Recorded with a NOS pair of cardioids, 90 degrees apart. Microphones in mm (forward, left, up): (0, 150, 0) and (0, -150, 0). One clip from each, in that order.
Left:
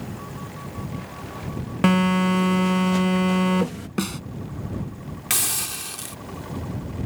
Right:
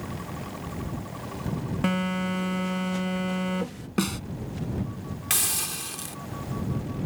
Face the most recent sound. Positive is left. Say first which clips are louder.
# left 2 dB
turn(degrees=10)